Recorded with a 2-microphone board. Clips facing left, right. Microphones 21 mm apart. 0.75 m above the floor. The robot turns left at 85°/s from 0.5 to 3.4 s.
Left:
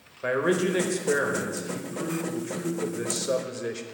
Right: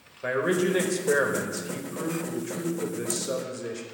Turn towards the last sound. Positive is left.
turn(degrees=15)  # may be behind; listen again after turning